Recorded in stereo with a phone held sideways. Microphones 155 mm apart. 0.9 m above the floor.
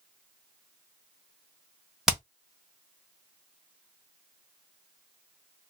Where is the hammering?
5° right (ahead or behind), 1.0 m.